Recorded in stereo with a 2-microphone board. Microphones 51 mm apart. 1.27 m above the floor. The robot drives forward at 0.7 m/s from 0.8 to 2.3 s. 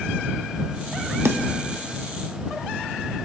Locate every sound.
1.2 s a snare drum: 65° right (ahead or behind), 0.7 m; by 1.4 s 60° right (ahead or behind), 0.8 m